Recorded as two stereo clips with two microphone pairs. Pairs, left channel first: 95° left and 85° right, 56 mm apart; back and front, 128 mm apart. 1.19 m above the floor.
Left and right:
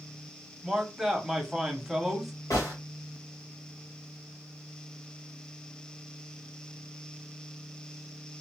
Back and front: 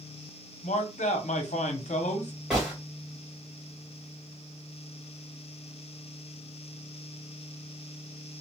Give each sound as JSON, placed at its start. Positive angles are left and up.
{"t": 0.6, "sound": "a man speaking", "azimuth_deg": -170, "distance_m": 0.7}
{"t": 2.5, "sound": "a gunshot", "azimuth_deg": 85, "distance_m": 1.3}